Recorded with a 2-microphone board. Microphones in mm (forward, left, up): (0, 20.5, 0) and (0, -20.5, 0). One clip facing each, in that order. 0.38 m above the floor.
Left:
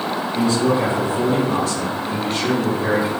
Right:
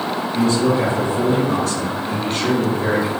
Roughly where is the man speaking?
Right.